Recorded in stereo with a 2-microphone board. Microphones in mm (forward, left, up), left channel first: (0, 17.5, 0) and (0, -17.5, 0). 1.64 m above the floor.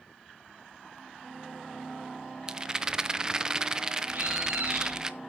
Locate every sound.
2.5 s a rattle: 20° right (ahead or behind), 0.6 m
4.1 s a bird: 75° right (ahead or behind), 4 m